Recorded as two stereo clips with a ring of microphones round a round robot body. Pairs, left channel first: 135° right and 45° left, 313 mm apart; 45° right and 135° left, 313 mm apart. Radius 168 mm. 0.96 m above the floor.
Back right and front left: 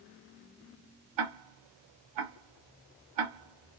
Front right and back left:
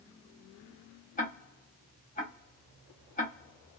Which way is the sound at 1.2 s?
20° left.